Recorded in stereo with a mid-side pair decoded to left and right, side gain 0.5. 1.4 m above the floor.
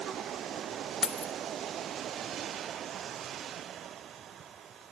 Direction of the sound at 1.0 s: 35° left.